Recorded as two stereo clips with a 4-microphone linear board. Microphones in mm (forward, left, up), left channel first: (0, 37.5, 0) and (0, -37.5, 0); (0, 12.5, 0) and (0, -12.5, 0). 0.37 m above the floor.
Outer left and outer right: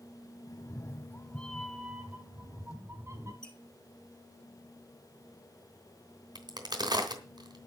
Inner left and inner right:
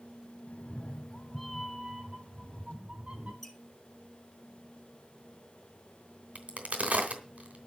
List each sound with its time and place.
0.5 s a cat meowing: 50° left (ahead or behind), 1.4 m; by 3.3 s 40° right (ahead or behind), 2 m
3.4 s a squeak: 10° left (ahead or behind), 1.9 m
6.3 s a crack: 70° right (ahead or behind), 3 m